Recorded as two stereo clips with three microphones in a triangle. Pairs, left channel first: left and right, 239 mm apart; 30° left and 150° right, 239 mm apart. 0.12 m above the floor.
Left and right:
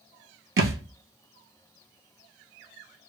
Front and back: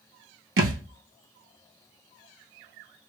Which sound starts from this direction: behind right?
A thud, at 0.6 s.